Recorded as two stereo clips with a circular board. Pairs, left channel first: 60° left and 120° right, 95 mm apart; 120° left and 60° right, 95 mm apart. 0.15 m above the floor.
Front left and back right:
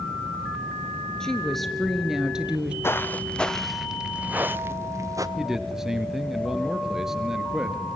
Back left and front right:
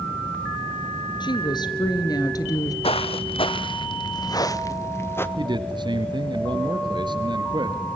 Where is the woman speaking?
145° left, 3 m; by 2.7 s 165° left, 3 m.